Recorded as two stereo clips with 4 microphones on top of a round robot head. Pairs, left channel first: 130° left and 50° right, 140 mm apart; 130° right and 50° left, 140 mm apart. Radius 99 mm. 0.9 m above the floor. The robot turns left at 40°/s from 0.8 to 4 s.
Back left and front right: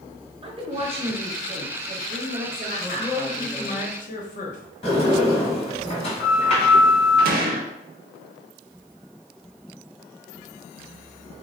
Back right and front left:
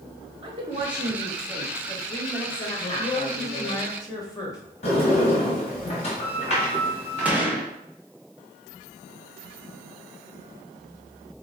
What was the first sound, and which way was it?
A woman speaking, straight ahead.